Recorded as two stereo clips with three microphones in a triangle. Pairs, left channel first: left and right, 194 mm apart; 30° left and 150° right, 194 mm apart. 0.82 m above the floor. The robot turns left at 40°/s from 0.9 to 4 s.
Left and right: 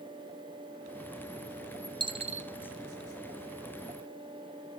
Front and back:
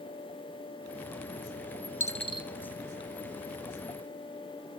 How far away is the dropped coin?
About 0.8 m.